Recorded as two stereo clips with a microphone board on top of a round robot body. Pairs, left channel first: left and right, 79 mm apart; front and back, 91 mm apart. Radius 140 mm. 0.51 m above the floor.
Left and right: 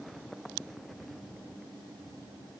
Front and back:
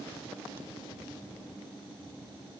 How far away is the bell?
No bell in this recording.